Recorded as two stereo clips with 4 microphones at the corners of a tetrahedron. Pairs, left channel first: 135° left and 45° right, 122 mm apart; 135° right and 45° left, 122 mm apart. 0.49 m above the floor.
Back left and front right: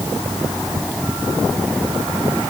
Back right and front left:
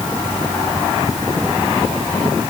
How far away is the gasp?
No gasp in this recording.